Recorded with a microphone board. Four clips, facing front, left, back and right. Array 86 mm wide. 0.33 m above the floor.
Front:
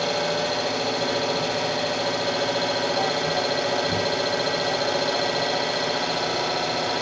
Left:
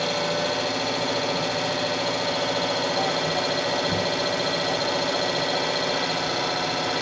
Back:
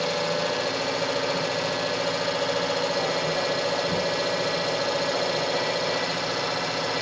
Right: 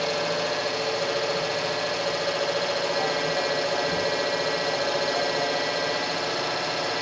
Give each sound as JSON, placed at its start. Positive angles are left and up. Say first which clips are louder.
{"t": 0.0, "sound": "an engine running", "louder": "left 1 dB, front 1 dB", "azimuth_deg": 50, "distance_m": 3.5}